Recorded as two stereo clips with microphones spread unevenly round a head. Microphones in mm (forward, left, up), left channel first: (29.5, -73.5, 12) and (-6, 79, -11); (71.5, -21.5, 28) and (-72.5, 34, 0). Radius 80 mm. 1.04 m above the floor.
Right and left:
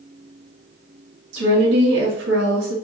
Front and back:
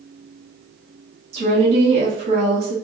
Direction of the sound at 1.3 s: 115° left.